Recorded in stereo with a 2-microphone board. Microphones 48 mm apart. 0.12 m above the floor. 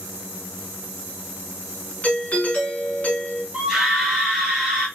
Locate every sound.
2.0 s a doorbell: 35° left (ahead or behind), 1.9 m
3.5 s a scream: 5° right (ahead or behind), 2.5 m